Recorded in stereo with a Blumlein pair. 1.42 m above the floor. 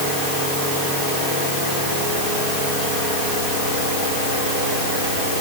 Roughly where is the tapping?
No tapping in this recording.